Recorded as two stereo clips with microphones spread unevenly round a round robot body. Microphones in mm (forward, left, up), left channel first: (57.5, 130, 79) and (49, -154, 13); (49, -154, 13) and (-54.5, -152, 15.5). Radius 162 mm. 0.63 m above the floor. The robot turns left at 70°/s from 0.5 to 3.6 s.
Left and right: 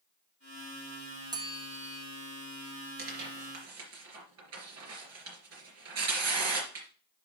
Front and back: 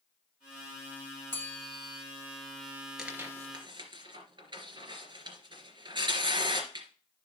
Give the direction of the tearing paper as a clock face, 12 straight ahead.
3 o'clock.